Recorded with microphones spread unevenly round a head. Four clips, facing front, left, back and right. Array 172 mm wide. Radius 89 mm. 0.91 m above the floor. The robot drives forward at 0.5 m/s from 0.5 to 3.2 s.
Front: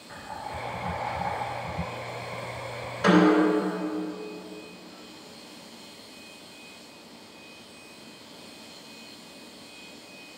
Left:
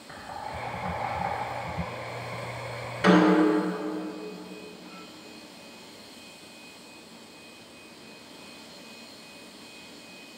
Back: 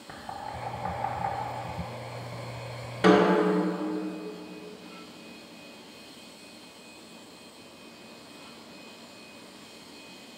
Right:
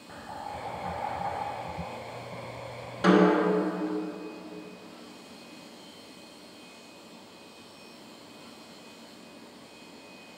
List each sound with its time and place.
0.1 s knocking: 175° right, 1.9 m
3.0 s a snare drum: 165° right, 1.5 m